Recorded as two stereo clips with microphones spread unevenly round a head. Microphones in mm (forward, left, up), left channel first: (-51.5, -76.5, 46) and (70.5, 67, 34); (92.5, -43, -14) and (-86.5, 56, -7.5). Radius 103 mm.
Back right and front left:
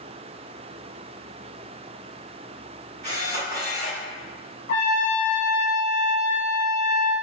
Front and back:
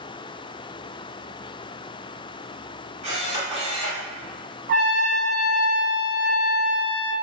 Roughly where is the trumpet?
Behind.